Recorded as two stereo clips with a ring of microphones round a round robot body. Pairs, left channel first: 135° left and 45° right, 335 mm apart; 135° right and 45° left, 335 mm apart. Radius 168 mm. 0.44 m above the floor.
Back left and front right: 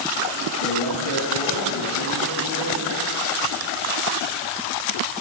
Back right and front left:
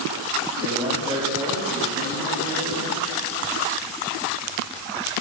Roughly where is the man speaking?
Behind left.